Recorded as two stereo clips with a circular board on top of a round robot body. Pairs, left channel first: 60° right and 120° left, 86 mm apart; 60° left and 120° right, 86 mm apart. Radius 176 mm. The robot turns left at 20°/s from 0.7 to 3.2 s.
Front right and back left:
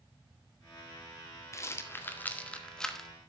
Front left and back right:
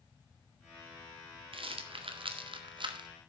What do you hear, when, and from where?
1.5 s a rattle: 120° right, 1.9 m; by 3.1 s 150° right, 1.9 m